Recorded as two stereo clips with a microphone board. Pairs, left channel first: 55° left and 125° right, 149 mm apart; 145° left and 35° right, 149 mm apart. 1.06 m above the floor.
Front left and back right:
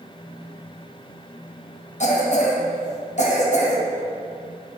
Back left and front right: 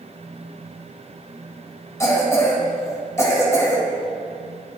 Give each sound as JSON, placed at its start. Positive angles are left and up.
{"t": 2.0, "sound": "a cough", "azimuth_deg": 80, "distance_m": 1.3}